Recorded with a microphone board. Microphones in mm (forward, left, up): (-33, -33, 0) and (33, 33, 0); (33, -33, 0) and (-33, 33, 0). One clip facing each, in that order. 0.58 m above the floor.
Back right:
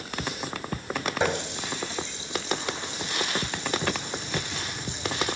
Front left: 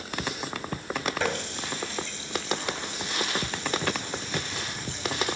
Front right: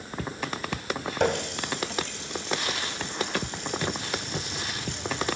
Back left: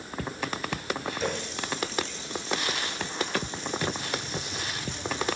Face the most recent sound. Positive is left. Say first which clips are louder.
# back right 3 dB, front right 5 dB
turn(degrees=-65)